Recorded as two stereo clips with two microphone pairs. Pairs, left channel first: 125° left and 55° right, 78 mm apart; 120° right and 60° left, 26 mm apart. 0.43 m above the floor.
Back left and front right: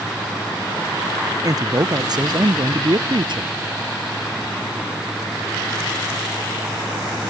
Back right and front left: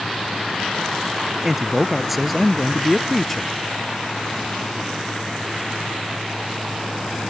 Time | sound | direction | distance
1.4 | a man speaking | 20° right | ?